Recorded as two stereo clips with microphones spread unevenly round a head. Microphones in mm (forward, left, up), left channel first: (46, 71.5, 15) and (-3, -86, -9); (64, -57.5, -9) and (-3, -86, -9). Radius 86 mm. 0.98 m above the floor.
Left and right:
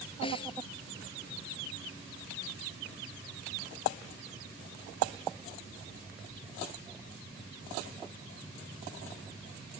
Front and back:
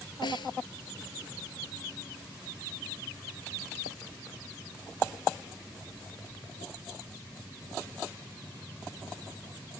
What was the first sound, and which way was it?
A snare drum, 15° left.